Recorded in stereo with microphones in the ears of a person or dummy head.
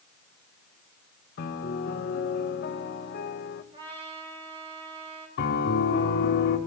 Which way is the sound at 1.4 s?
55° left (ahead or behind).